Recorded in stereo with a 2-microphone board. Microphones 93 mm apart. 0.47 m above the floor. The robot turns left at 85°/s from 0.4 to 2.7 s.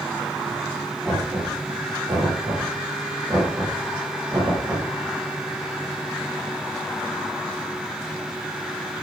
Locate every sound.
1.1 s knocking: 5° right (ahead or behind), 9.5 m; by 4.9 s 35° right (ahead or behind), 9.5 m